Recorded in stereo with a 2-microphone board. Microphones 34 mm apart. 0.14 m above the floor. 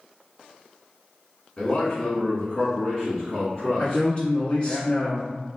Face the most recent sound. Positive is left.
turn(degrees=30)  # may be behind; listen again after turning